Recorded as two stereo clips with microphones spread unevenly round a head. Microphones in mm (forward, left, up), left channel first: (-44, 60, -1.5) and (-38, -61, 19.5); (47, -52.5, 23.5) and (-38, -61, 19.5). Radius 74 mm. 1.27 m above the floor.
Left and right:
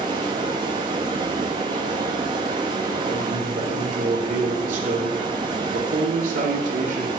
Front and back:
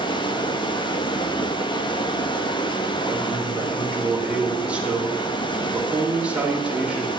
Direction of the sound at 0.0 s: 25° right.